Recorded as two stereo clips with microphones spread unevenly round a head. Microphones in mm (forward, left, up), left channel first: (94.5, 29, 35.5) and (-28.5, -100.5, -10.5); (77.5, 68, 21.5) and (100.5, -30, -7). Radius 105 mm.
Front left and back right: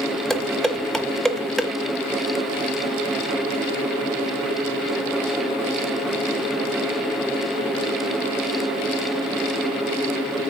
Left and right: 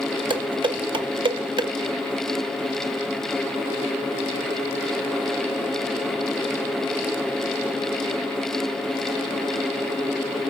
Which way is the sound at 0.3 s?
35° right.